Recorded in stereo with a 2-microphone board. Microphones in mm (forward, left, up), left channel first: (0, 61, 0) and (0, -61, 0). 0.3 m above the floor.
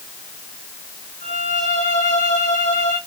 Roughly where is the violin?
Left.